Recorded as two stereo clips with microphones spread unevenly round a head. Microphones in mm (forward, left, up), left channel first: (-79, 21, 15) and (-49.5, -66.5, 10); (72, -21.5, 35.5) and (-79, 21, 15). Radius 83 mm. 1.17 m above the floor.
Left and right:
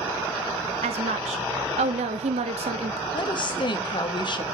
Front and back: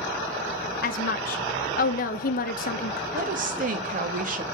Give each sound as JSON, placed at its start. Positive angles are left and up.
{"t": 0.8, "sound": "a woman speaking", "azimuth_deg": -55, "distance_m": 0.9}
{"t": 3.1, "sound": "a woman speaking", "azimuth_deg": 140, "distance_m": 1.2}